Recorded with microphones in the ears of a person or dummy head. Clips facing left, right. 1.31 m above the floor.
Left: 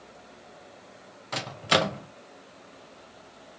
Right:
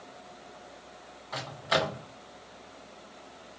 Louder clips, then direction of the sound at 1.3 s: Left 3 dB; 40° left (ahead or behind).